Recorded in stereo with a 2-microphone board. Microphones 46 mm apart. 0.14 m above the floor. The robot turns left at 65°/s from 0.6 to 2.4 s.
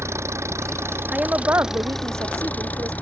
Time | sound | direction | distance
0.0 | an engine running | 100° right | ?
1.1 | a woman speaking | 20° right | ?